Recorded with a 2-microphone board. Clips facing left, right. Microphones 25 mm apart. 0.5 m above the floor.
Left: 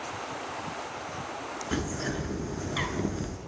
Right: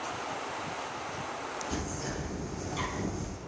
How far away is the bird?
About 0.9 m.